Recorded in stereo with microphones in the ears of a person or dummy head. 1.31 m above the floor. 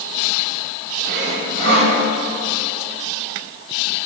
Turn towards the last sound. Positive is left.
turn(degrees=-55)  # may be behind; listen again after turning